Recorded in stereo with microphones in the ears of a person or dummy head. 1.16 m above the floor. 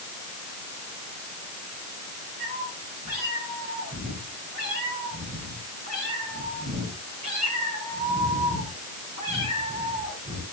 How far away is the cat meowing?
About 7.5 m.